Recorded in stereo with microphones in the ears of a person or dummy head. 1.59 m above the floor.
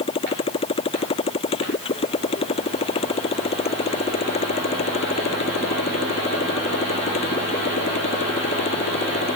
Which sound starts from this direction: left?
A motorcycle, at 0.0 s.